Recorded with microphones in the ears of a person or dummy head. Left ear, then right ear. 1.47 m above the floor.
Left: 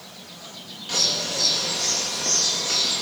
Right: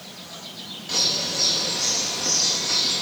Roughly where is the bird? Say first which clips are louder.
Even; centre.